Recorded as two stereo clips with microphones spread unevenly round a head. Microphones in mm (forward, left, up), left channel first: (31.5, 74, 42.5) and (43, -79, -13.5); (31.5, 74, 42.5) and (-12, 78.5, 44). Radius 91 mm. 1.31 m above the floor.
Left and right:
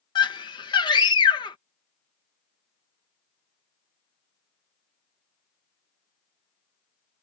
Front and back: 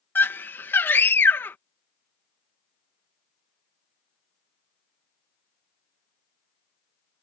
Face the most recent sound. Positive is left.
turn(degrees=30)